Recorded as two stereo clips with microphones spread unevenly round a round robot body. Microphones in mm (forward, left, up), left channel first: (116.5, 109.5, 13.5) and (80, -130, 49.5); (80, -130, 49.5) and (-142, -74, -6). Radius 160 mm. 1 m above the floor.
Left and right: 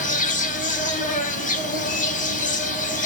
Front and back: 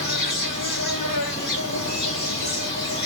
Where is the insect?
45° left, 1.4 m.